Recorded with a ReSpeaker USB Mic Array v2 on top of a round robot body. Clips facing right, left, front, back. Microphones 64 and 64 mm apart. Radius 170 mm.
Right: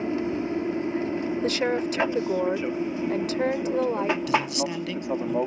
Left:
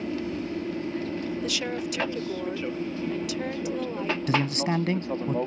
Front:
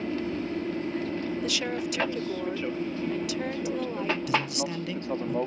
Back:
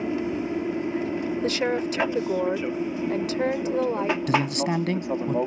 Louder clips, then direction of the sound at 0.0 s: Right 4 dB, back 4 dB; 120° right.